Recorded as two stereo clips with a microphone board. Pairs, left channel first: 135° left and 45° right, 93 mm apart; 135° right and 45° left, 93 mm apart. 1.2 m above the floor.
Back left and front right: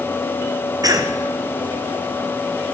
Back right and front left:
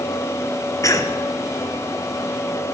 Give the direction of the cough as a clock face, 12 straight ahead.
3 o'clock.